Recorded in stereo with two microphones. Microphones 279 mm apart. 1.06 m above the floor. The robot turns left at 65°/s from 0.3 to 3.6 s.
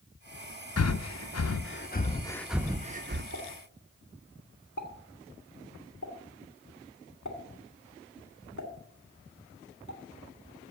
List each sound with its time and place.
0.8 s breathing: 60° left (ahead or behind), 0.6 m; by 3.2 s 45° right (ahead or behind), 0.6 m
3.3 s a pop: 75° left (ahead or behind), 2 m; by 10.0 s 85° left, 2 m